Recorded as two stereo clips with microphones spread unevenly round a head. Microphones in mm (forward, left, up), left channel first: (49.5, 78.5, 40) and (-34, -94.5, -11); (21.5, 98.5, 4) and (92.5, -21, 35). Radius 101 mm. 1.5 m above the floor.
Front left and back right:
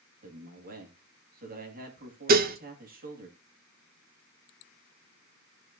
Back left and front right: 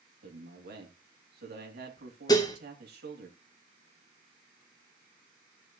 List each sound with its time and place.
0.2 s a man speaking: 70° right, 2.5 m
2.3 s dishes clattering: 160° right, 0.8 m